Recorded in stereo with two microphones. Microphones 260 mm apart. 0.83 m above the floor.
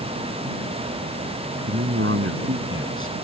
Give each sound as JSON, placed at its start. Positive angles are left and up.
{"t": 1.7, "sound": "a man speaking", "side_deg": -50}